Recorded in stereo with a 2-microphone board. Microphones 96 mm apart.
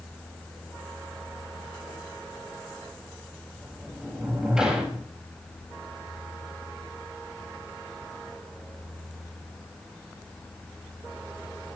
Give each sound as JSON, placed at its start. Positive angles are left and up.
{"t": 3.6, "sound": "a sliding door", "side_deg": -10, "distance_m": 6.0}